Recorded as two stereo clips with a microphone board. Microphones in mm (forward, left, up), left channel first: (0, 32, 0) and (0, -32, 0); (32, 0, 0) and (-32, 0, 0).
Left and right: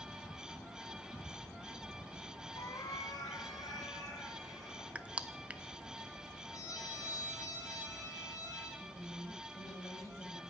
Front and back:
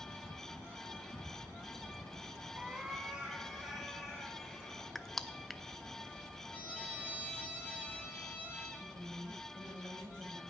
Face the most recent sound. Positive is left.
turn(degrees=140)